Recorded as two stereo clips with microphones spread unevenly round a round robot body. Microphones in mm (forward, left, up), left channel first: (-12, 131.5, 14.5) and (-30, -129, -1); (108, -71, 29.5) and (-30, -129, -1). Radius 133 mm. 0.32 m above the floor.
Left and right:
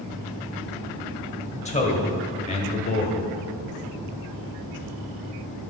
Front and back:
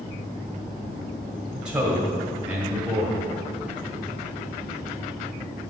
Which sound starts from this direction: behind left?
A man speaking, at 1.5 s.